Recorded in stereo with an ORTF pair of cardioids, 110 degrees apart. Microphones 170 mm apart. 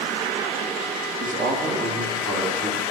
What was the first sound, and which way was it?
A man speaking, 55° right.